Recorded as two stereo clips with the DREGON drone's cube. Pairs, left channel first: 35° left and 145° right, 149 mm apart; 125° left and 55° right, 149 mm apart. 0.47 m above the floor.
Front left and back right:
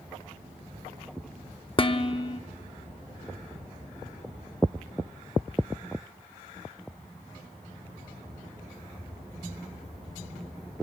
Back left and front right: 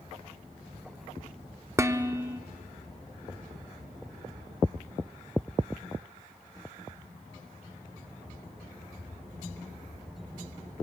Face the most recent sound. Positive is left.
turn(degrees=5)